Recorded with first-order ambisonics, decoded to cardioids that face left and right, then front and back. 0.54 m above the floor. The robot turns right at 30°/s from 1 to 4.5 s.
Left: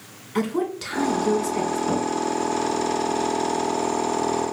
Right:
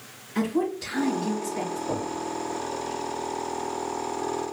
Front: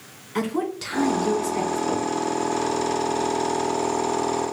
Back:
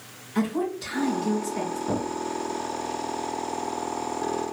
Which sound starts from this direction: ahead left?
A woman speaking, at 0.3 s.